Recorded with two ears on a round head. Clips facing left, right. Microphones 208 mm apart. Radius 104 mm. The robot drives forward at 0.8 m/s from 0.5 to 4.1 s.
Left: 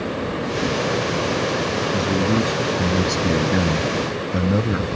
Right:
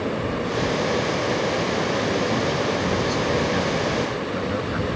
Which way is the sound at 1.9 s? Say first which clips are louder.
Left 3 dB; 35° left (ahead or behind).